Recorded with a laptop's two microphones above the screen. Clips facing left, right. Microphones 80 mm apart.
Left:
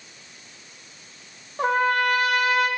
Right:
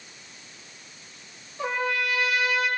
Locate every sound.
1.6 s a trumpet: 50° left (ahead or behind), 2.5 m